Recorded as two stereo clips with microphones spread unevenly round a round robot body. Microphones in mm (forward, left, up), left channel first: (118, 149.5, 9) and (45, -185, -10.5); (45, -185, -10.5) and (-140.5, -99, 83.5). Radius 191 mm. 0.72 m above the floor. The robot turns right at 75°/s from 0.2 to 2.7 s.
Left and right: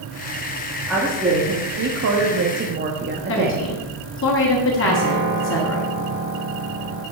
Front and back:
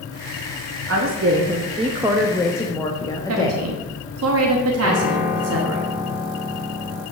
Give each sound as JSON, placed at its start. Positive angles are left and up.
{"t": 0.9, "sound": "a woman speaking", "azimuth_deg": 165, "distance_m": 1.2}
{"t": 3.3, "sound": "a woman speaking", "azimuth_deg": 130, "distance_m": 1.2}
{"t": 4.8, "sound": "a piano", "azimuth_deg": -130, "distance_m": 5.0}